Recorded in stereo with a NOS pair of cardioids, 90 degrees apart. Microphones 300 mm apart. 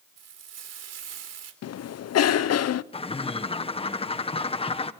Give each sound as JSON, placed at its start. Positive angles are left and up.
{"t": 0.2, "sound": "frying", "azimuth_deg": -60, "distance_m": 3.5}
{"t": 1.6, "sound": "a cough", "azimuth_deg": 55, "distance_m": 1.0}
{"t": 2.9, "sound": "a bird", "azimuth_deg": 20, "distance_m": 1.3}